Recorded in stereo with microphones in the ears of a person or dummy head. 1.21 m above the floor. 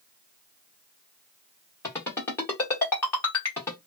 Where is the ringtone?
15° left (ahead or behind), 1.2 m.